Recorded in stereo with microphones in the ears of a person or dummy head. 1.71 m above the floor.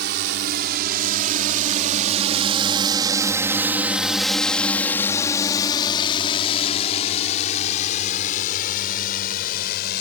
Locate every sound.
0.0 s a drone: 60° right (ahead or behind); by 10.0 s 55° left (ahead or behind)